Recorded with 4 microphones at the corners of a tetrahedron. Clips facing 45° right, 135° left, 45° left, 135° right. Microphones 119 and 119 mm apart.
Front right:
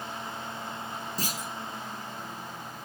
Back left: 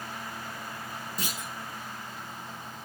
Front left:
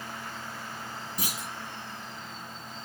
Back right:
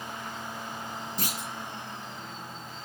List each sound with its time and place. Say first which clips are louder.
1.2 s a clunk: front right 2 dB, even; 25° right, 1.2 m